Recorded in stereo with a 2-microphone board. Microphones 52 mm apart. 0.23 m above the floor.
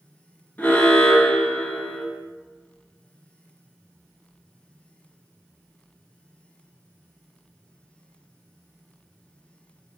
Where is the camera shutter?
I don't hear a camera shutter.